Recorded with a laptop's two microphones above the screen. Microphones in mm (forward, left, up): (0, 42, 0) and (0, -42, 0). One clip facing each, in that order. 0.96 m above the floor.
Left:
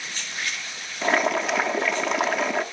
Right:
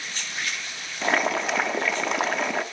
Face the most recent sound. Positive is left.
turn(degrees=0)  # may be behind; listen again after turning